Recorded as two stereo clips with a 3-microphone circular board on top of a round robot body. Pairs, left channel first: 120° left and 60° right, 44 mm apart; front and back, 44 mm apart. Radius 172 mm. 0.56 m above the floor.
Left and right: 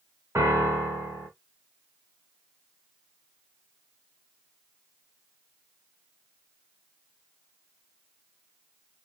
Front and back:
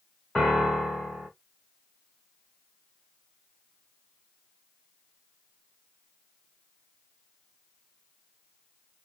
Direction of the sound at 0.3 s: 75° right.